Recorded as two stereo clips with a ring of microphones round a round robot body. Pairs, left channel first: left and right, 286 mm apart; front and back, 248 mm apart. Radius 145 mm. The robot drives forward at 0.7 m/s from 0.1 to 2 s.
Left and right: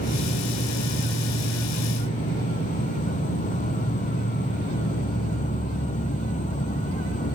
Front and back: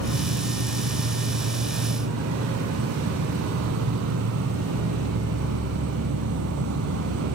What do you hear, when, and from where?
0.0 s an insect: 155° left